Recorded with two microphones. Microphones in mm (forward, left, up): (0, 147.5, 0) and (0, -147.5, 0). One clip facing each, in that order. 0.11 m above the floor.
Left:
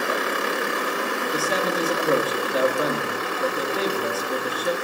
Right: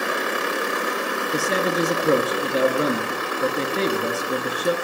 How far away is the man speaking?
About 1.9 m.